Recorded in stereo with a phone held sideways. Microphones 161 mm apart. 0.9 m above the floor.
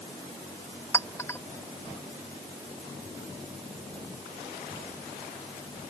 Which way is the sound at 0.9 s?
15° left (ahead or behind).